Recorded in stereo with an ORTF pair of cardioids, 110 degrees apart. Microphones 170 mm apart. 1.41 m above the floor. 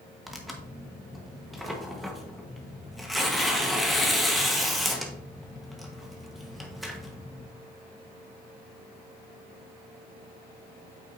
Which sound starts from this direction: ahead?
Tearing paper, at 0.3 s.